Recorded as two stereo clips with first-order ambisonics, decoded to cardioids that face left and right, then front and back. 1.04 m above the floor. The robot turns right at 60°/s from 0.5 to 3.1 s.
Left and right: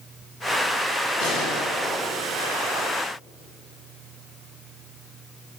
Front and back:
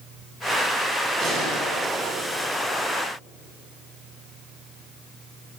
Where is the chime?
I don't hear a chime.